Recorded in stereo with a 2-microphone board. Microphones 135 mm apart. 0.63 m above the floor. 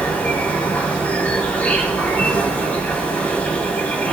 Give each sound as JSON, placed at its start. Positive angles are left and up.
{"t": 0.0, "sound": "an insect", "side_deg": 10, "distance_m": 4.0}